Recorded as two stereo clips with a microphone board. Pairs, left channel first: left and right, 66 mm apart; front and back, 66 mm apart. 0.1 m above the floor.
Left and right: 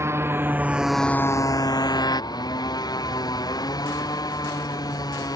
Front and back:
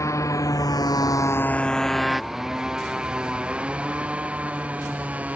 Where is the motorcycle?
40° right; by 5.4 s 110° left.